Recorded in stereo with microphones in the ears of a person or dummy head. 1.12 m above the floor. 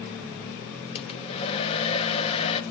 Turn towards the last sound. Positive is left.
turn(degrees=30)  # may be behind; listen again after turning